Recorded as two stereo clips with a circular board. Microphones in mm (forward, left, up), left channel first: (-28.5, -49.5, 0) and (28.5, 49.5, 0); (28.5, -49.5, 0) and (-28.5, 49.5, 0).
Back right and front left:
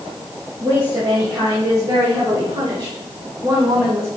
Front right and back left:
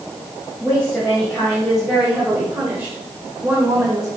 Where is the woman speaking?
20° left, 2.5 m; by 4.1 s 90° left, 1.7 m.